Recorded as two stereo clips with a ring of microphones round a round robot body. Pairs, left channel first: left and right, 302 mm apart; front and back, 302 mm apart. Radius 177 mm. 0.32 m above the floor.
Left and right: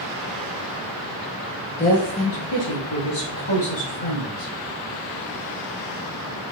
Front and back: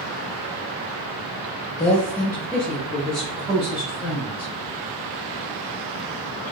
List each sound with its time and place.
1.8 s a woman speaking: 45° left, 0.9 m; by 4.5 s 100° left, 3 m